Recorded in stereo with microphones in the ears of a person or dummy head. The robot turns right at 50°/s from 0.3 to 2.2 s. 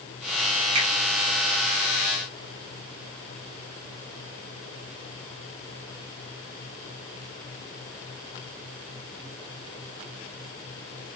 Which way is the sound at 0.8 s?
75° right (ahead or behind).